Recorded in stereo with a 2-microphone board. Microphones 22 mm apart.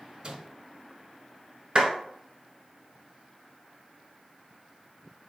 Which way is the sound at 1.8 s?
35° right (ahead or behind).